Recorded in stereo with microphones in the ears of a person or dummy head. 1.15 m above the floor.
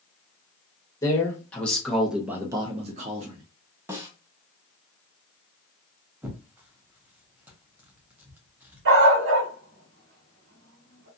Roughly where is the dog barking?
Right.